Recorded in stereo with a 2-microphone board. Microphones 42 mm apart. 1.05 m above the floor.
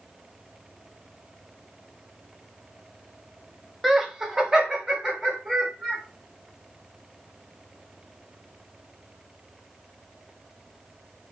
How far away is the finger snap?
No finger snap in this recording.